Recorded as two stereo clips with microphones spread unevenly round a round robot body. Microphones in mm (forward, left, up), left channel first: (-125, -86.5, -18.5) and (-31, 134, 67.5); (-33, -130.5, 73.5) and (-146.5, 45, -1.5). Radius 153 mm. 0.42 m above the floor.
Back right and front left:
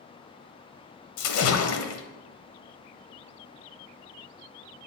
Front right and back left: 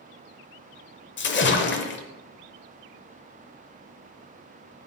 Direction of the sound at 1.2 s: 100° right.